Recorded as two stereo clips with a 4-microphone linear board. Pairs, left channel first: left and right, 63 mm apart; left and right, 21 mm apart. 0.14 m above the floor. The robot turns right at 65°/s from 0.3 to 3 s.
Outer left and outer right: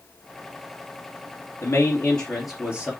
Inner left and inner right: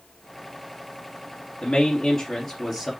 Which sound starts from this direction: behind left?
A man speaking, at 1.6 s.